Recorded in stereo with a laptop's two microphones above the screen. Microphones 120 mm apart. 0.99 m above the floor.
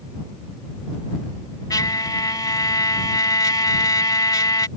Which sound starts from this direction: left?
A trumpet, at 1.7 s.